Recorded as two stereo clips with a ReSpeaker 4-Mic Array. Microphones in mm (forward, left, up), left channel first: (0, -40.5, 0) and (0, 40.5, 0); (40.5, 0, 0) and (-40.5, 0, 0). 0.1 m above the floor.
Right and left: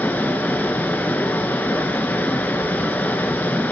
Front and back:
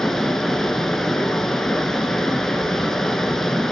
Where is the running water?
75° right, 0.7 m.